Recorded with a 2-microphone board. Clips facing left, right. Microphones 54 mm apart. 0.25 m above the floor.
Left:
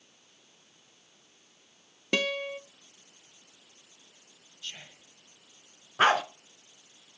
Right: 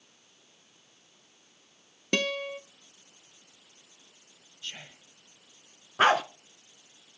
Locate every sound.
2.1 s a guitar: 5° left (ahead or behind), 0.8 m
4.6 s whispering: 20° right (ahead or behind), 1.1 m
6.0 s a dog barking: 10° right (ahead or behind), 1.2 m